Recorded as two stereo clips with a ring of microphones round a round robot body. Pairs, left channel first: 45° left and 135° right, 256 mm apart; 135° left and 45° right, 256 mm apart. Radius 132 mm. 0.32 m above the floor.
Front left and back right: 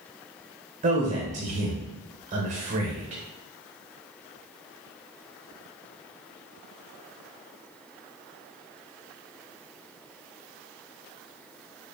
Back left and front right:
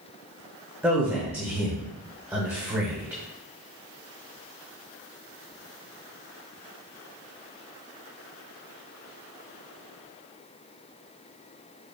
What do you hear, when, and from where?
0.8 s a man speaking: 120° right, 0.9 m